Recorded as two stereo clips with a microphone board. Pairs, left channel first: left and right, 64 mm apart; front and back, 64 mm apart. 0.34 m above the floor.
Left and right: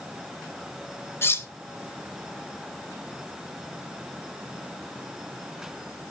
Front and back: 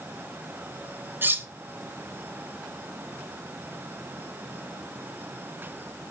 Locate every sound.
1.2 s cutlery clinking: 135° left, 0.8 m